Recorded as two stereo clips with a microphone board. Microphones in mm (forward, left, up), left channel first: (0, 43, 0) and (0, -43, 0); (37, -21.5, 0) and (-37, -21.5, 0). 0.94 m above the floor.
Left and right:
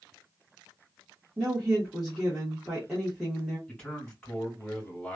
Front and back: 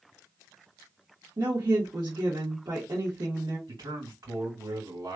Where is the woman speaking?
175° right, 1.4 m.